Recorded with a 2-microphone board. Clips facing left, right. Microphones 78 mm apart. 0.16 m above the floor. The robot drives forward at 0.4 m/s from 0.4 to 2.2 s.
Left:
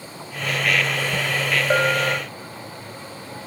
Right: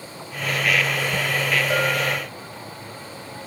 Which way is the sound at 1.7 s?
35° left (ahead or behind).